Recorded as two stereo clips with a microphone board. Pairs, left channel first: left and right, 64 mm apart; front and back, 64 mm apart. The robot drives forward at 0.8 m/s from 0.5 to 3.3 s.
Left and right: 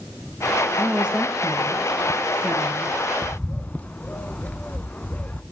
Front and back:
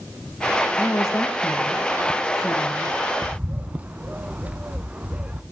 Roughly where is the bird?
Behind left.